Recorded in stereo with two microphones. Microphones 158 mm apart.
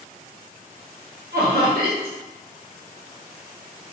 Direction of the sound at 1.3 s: 75° right (ahead or behind).